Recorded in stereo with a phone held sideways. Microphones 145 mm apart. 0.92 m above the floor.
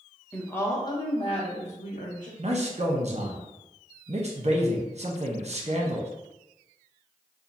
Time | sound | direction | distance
0.3 | a woman speaking | 5° left (ahead or behind) | 0.8 m
2.4 | a man speaking | 50° right (ahead or behind) | 0.7 m